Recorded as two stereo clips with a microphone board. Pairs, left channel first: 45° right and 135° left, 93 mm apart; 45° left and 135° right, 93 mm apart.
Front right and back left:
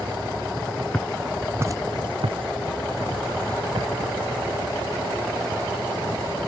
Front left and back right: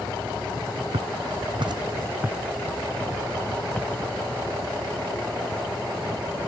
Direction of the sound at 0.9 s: 125° right.